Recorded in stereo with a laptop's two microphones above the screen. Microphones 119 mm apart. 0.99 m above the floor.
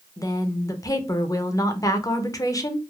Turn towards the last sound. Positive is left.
turn(degrees=30)  # may be behind; listen again after turning